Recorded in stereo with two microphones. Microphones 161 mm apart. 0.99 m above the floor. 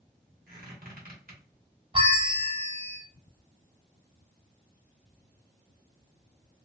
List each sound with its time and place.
0.5 s a squeak: 60° right (ahead or behind), 1.6 m
1.9 s a bell: 35° right (ahead or behind), 1.2 m